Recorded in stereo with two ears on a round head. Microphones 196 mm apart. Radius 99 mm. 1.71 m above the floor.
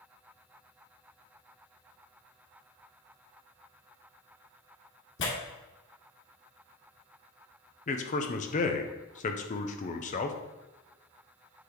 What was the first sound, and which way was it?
Tearing paper, 55° left (ahead or behind).